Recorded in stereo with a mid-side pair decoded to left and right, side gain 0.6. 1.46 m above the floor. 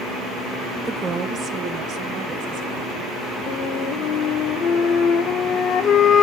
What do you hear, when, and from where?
0.8 s a woman speaking: 20° right, 0.7 m; by 3.4 s 65° right, 2 m
3.5 s a flute: 50° left, 1.0 m